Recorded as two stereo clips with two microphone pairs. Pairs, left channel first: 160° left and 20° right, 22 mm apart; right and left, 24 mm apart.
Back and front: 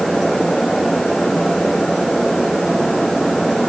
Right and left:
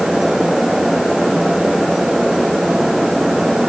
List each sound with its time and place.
Only background noise.